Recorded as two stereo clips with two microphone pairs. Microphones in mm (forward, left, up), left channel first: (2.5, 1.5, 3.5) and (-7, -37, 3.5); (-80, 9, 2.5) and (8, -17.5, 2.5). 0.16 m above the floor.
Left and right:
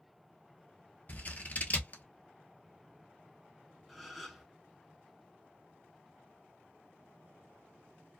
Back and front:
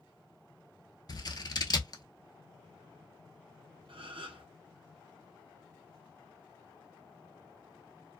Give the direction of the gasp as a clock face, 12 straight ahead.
12 o'clock.